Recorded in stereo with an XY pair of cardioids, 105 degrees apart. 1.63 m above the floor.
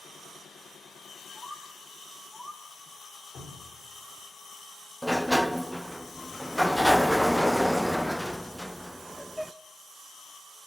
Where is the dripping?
55° left, 4.5 m.